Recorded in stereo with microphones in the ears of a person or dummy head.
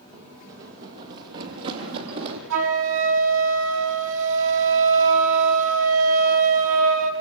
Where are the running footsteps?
40° right (ahead or behind), 2.5 m; by 2.4 s 55° right (ahead or behind), 3 m.